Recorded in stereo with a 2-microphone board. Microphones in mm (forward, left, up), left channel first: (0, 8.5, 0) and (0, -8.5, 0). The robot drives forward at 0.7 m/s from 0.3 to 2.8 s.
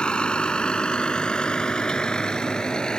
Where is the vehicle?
85° left; by 3.0 s 55° left (ahead or behind).